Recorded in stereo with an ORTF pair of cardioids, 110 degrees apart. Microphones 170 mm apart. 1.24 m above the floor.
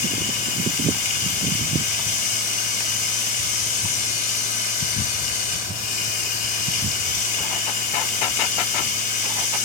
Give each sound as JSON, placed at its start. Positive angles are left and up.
{"t": 0.0, "sound": "running water", "azimuth_deg": 55, "distance_m": 4.5}